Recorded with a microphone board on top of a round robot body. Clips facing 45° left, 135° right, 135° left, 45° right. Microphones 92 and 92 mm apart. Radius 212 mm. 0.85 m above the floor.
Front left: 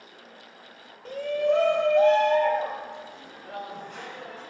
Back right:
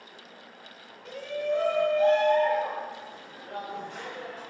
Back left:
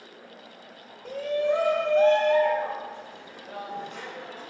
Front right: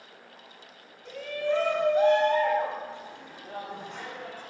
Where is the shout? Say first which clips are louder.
Front left 6 dB, back left 4 dB; 95° left, 0.9 m; by 4.4 s straight ahead, 3 m.